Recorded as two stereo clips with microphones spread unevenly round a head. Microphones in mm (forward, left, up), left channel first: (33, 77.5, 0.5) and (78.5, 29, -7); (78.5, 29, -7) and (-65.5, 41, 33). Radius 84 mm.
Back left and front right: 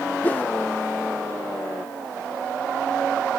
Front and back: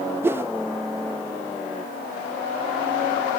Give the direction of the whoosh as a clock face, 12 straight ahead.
9 o'clock.